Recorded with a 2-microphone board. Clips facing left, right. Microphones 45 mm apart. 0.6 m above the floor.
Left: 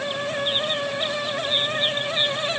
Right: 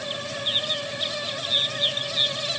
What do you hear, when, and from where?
Only background noise.